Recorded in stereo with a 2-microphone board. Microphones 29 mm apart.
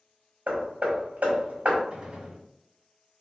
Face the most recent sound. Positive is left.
turn(degrees=-30)  # may be behind; listen again after turning